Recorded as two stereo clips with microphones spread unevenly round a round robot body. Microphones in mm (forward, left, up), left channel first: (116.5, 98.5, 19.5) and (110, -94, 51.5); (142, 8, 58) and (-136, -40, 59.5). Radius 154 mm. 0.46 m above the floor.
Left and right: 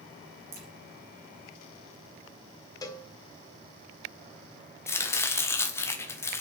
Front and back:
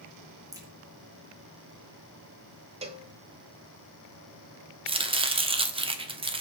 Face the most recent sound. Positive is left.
turn(degrees=135)